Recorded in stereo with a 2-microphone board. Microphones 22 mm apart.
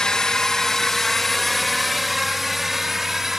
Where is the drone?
35° left (ahead or behind); by 3.4 s 10° right (ahead or behind).